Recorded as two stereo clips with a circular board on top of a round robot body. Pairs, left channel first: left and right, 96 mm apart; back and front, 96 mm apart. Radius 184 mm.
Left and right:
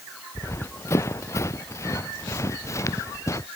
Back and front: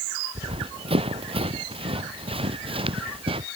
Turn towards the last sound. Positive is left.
turn(degrees=30)